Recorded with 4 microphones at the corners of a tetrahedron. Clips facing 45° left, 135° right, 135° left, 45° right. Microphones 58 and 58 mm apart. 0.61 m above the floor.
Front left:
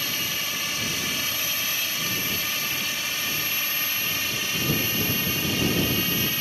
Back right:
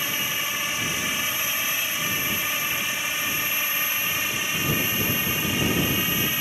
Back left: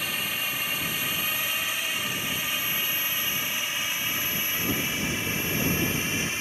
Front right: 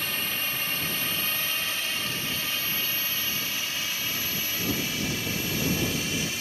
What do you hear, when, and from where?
0.0 s a drone: 150° right; by 6.4 s 165° left